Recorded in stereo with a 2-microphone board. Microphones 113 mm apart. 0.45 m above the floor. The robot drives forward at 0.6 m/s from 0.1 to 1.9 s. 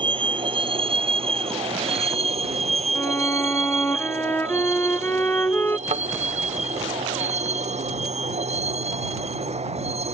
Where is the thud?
80° right.